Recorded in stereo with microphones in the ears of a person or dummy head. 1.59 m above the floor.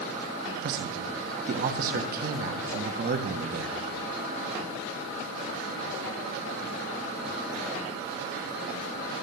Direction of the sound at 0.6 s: 50° right (ahead or behind).